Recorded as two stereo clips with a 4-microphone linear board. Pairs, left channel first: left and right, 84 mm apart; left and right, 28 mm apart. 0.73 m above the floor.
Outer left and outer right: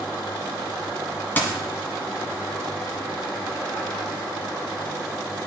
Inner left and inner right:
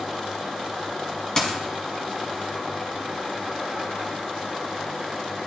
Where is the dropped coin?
25° left (ahead or behind), 1.4 m.